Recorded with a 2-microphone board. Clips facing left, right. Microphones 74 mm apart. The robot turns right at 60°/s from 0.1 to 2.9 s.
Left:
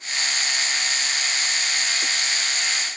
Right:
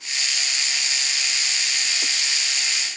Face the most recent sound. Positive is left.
No sound to turn to.